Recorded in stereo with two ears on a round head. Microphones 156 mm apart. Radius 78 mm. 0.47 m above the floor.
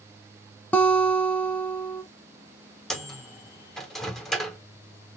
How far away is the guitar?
About 0.7 m.